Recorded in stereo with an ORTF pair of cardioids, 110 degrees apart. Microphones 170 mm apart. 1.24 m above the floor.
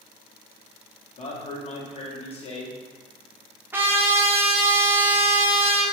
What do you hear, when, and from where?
1.2 s a man speaking: 40° left, 1.0 m
3.7 s a trumpet: 10° right, 0.6 m